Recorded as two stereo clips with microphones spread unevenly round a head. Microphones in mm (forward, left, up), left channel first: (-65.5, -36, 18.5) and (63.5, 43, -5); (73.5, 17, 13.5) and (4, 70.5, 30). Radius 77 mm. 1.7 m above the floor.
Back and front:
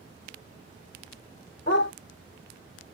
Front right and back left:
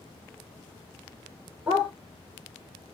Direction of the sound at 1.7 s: 140° right.